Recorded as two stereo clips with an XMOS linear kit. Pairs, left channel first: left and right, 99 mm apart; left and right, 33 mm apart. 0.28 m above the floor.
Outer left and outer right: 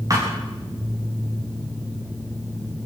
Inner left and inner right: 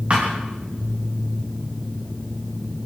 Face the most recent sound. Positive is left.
turn(degrees=-35)  # may be behind; listen again after turning